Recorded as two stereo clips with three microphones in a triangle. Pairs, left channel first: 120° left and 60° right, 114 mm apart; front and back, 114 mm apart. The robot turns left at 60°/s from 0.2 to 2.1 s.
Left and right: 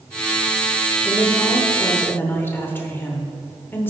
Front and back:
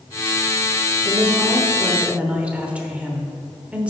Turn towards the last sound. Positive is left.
turn(degrees=125)